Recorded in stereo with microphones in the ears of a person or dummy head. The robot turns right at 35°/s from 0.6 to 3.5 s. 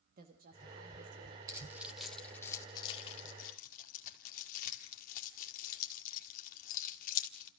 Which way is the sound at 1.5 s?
20° right (ahead or behind).